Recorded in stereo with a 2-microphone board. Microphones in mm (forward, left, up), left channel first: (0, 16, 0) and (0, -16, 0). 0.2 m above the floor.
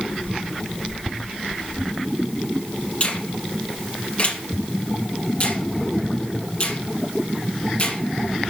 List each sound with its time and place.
3.0 s a finger snap: 40° left (ahead or behind), 2.5 m